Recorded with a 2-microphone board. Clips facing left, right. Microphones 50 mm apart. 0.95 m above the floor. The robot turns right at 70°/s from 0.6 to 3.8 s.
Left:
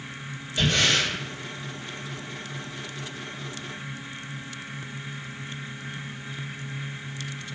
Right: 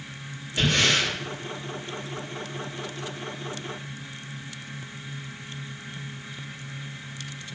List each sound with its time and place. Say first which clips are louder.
0.6 s breathing: even; 105° right, 1.6 m; by 1.1 s 70° right, 1.6 m